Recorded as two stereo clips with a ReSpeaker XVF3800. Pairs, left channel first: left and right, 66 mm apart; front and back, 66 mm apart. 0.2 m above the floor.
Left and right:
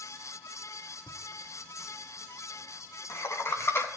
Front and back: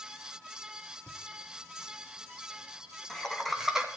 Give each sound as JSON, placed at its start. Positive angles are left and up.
{"t": 1.1, "sound": "laughter", "azimuth_deg": 45, "distance_m": 3.0}